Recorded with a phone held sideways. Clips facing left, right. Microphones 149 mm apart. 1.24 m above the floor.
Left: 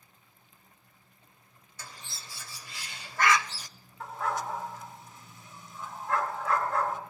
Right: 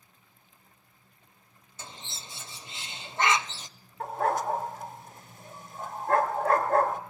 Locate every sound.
1.8 s a bird: 25° right (ahead or behind), 0.6 m
4.0 s a dog barking: 50° right (ahead or behind), 1.4 m